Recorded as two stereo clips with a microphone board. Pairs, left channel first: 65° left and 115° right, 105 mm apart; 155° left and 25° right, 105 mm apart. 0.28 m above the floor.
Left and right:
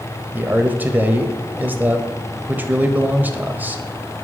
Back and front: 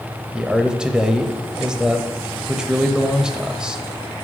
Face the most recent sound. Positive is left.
turn(degrees=-90)